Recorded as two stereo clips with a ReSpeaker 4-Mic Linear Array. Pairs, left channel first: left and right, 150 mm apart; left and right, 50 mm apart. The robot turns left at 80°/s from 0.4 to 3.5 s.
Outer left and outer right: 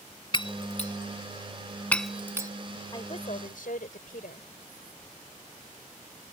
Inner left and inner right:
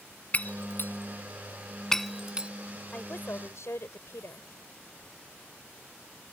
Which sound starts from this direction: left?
Breaking glass, at 0.3 s.